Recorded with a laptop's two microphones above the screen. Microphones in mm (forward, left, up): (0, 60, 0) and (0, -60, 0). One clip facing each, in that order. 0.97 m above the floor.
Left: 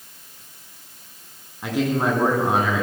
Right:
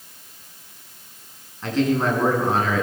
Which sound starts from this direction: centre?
A man speaking, at 1.6 s.